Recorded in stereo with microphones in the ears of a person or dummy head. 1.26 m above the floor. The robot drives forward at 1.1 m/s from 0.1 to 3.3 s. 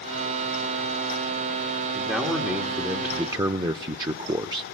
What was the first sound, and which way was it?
A man speaking, 5° right (ahead or behind).